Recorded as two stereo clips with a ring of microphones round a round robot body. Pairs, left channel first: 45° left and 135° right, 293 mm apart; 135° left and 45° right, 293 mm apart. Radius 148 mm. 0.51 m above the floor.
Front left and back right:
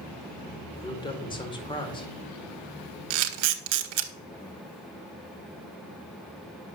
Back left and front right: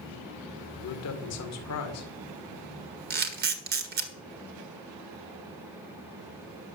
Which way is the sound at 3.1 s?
105° right.